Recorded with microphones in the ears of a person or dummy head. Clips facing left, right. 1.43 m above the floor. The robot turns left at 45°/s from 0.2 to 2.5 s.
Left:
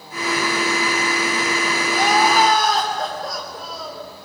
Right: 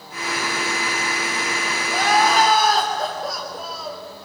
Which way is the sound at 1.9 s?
25° left (ahead or behind).